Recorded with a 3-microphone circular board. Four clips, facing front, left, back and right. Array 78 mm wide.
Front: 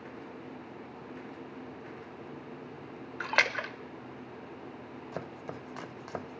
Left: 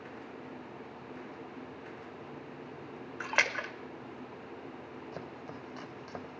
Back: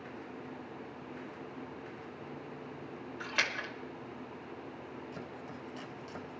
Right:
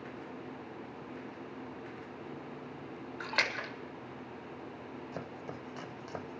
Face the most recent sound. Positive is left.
turn(degrees=-5)